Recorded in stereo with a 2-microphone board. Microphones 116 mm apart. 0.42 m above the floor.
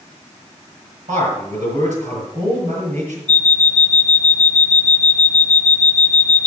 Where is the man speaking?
75° right (ahead or behind), 7.5 m.